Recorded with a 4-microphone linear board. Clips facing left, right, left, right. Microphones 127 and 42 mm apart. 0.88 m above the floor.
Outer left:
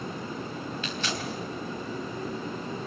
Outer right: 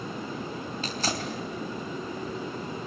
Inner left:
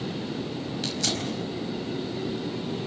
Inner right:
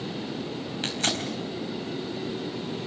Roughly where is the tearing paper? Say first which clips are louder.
Outer right 4 dB, inner right 2 dB; right.